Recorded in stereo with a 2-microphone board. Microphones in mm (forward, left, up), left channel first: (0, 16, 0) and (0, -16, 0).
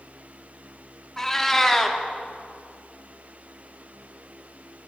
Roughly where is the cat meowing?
Centre.